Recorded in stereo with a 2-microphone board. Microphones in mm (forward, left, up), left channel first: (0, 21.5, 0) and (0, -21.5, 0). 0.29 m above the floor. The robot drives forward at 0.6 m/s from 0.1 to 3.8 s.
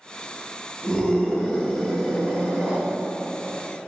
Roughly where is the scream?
Centre.